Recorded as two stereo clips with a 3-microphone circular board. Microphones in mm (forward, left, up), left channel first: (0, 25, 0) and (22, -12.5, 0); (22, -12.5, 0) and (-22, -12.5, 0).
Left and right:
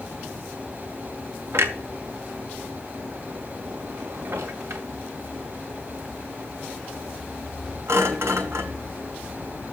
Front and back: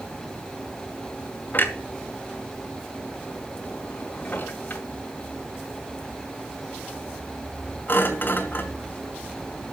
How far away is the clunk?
About 2 m.